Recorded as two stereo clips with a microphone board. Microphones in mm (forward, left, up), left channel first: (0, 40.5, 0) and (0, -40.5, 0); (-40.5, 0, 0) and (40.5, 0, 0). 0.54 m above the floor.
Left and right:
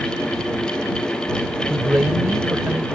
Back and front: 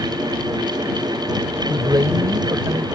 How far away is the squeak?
I don't hear a squeak.